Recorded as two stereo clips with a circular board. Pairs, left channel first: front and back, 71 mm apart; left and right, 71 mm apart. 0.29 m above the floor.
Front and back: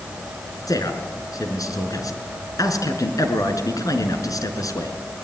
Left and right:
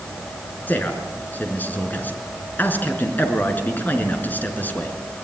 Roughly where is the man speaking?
Ahead left.